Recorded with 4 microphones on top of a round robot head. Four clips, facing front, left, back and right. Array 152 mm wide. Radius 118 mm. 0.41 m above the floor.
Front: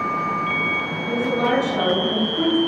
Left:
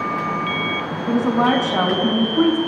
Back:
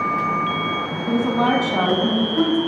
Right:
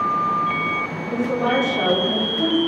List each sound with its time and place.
1.1 s a woman speaking: 125° left, 5 m